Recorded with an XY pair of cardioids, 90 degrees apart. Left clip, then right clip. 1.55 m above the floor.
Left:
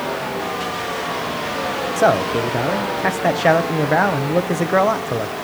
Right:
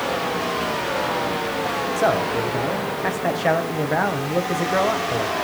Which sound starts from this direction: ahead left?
A man speaking, at 2.0 s.